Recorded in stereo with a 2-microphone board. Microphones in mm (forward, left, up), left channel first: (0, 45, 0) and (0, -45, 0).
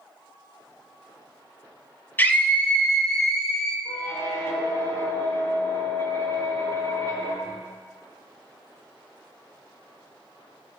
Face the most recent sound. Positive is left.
turn(degrees=55)  # may be behind; listen again after turning